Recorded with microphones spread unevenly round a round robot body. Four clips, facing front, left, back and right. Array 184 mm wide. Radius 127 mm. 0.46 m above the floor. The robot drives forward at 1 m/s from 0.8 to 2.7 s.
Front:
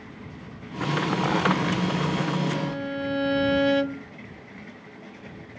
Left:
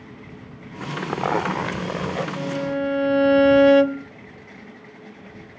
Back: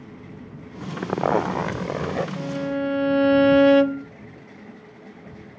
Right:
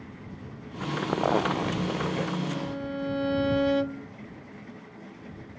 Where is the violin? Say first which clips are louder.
Left 7 dB, back 2 dB; 90° left; by 4.1 s 110° left.